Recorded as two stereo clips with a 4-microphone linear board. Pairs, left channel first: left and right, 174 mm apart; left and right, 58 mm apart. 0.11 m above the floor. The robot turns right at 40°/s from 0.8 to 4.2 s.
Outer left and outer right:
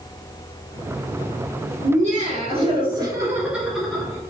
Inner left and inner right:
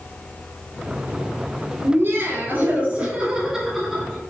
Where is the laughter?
80° right, 2.0 m; by 4.2 s 15° left, 2.0 m.